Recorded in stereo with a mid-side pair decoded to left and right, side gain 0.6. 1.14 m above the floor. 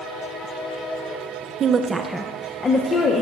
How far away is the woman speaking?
About 0.6 m.